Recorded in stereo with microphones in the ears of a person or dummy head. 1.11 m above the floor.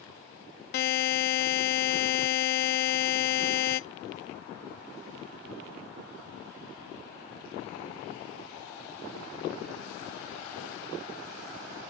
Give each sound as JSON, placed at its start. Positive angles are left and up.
{"t": 0.7, "sound": "a buzzer", "side_deg": 50, "distance_m": 0.5}